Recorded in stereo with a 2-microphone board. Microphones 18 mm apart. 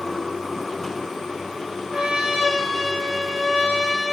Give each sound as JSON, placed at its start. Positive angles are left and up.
{"t": 1.9, "sound": "a trumpet", "side_deg": -70, "distance_m": 2.5}